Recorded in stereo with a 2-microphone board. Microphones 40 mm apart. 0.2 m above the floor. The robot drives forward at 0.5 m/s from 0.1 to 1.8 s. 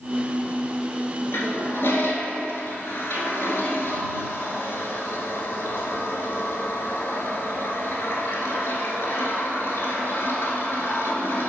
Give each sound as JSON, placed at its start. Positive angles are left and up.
{"t": 1.3, "sound": "a toilet flushing", "side_deg": 70, "distance_m": 1.1}